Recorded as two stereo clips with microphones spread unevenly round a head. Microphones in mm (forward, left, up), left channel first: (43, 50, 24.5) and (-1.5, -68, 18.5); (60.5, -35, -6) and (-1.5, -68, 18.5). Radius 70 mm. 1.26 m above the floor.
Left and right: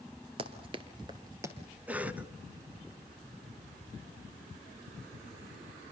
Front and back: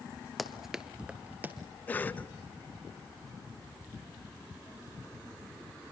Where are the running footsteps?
90° right, 1.5 m; by 1.6 s straight behind, 1.7 m.